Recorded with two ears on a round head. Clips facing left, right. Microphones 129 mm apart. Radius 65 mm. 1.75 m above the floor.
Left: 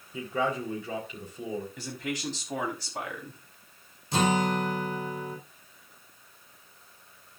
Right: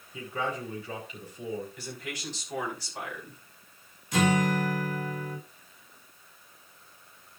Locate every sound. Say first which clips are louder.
0.1 s a man speaking: left 4 dB; 80° left, 5 m
1.8 s a man speaking: left 5 dB; 70° left (ahead or behind), 4.5 m
4.1 s a guitar: even; 30° left (ahead or behind), 4.5 m